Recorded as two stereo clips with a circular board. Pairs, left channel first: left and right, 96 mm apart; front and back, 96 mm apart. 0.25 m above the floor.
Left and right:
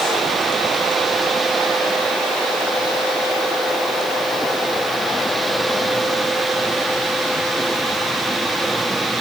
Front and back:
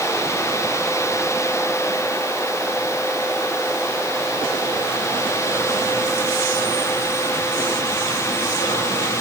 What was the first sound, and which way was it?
Only background noise.